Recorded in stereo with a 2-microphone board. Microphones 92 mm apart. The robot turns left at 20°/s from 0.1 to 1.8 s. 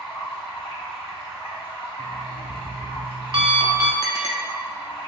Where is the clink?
35° left (ahead or behind), 0.9 m.